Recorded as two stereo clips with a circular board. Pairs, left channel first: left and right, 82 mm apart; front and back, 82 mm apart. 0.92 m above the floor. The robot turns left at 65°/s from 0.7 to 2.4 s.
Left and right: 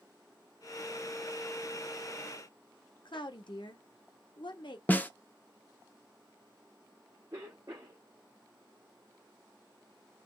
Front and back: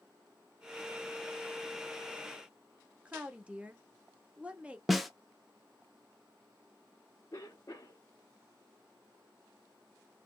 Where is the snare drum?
90° left, 0.7 m.